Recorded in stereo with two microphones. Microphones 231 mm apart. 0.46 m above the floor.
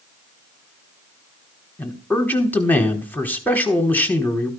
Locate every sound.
1.8 s a man speaking: 5° left (ahead or behind), 1.3 m